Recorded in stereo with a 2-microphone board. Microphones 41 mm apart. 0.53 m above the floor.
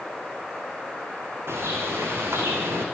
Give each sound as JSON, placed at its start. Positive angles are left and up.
{"t": 1.5, "sound": "a bird", "side_deg": -90, "distance_m": 7.0}